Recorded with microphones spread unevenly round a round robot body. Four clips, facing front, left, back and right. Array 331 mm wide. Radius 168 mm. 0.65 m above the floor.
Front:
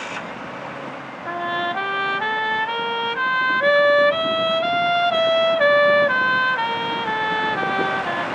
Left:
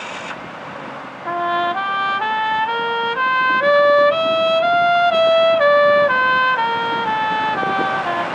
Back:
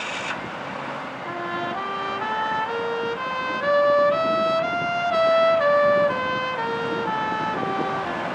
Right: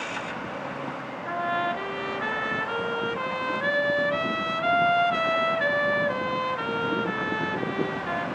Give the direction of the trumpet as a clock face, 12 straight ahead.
9 o'clock.